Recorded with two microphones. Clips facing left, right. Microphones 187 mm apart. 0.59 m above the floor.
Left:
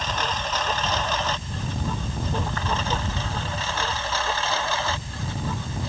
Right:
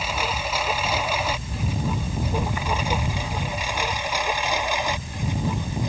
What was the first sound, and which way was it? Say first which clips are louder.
A lawn mower: right 1 dB; 10° right (ahead or behind).